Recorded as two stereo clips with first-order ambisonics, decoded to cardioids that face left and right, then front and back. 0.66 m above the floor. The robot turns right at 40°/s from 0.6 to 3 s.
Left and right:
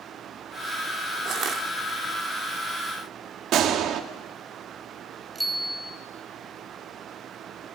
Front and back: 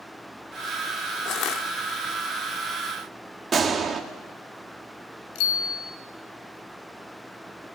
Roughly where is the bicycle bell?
Ahead.